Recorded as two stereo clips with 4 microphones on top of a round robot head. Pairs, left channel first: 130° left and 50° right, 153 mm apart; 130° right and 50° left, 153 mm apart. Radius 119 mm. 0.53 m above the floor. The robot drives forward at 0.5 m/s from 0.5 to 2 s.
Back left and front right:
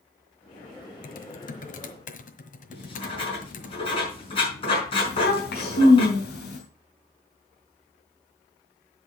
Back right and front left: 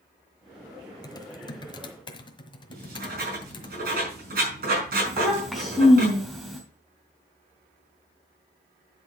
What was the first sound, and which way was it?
Typing on a keyboard, 160° left.